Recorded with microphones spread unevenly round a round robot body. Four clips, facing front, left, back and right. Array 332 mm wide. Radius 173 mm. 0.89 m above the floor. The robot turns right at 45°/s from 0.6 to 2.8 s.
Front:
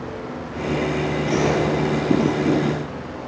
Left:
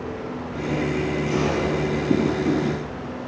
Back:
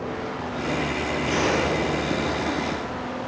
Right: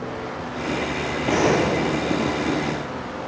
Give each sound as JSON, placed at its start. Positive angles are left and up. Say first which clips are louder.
{"t": 1.3, "sound": "a gunshot", "louder": "right 7 dB, front 3 dB", "azimuth_deg": -90, "distance_m": 5.5}